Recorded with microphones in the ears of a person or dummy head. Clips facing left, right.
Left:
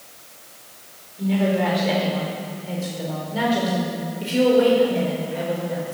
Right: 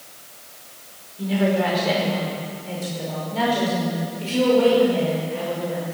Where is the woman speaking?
10° right (ahead or behind), 5.5 m; by 6.0 s 20° left (ahead or behind), 6.5 m.